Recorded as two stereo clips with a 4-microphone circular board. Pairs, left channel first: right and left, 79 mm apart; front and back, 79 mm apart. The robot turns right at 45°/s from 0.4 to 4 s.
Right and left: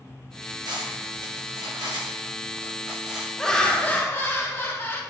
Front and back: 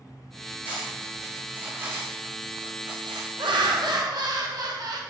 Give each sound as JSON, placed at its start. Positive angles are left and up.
{"t": 0.7, "sound": "cutlery clinking", "azimuth_deg": 65, "distance_m": 3.5}
{"t": 3.4, "sound": "laughter", "azimuth_deg": -175, "distance_m": 1.1}